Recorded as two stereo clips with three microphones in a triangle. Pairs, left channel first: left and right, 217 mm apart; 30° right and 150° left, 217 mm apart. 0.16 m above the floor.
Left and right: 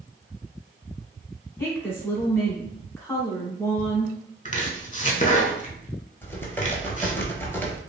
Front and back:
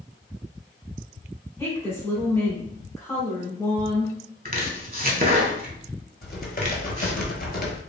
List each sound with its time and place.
1.6 s a woman speaking: 30° left, 1.1 m
4.5 s chopping: 125° left, 0.5 m
6.2 s typing on a keyboard: 10° left, 0.8 m